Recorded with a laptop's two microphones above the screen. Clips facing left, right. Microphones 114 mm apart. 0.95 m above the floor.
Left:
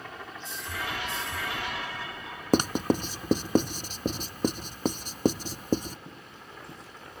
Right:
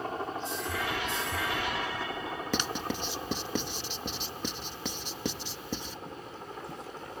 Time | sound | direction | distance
0.0 | a helicopter | 35° right (ahead or behind) | ?
2.5 | writing | 45° left (ahead or behind) | ?